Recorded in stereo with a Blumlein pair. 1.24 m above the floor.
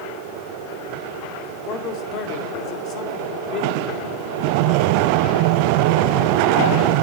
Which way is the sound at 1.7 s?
35° left.